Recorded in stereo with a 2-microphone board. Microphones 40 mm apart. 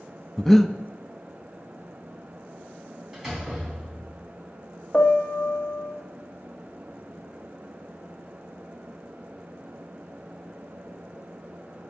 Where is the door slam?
10° right (ahead or behind), 4.5 m.